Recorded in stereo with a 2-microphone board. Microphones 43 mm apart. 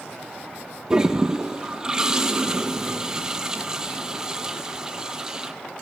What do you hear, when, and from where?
0.9 s a toilet flushing: 15° right (ahead or behind), 0.9 m